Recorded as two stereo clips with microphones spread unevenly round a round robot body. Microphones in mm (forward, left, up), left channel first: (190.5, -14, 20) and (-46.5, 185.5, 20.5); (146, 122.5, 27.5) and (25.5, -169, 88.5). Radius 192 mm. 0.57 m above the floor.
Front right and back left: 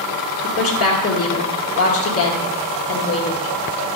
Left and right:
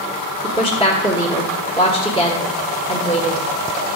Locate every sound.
0.4 s a woman speaking: straight ahead, 1.5 m